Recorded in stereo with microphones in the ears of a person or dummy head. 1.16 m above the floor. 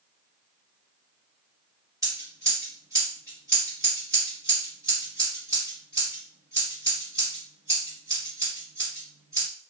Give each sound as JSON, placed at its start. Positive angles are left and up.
{"t": 2.0, "sound": "scissors", "side_deg": -15, "distance_m": 1.4}